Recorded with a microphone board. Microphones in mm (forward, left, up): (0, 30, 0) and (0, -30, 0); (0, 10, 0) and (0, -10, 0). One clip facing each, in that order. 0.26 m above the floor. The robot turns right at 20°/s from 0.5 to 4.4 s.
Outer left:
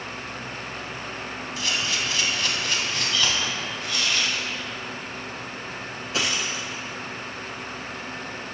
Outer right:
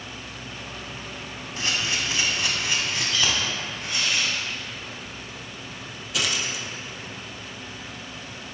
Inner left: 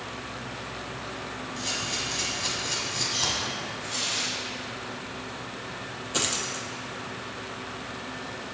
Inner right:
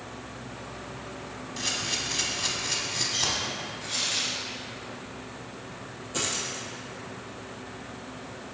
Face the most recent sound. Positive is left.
turn(degrees=35)  # may be behind; listen again after turning